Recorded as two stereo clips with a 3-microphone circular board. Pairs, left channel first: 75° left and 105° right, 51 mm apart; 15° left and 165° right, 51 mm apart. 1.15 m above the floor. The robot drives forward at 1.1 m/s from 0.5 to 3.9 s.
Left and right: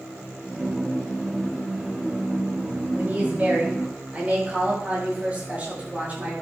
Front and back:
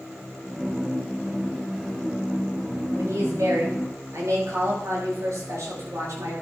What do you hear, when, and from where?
3.0 s a woman speaking: 165° right, 5 m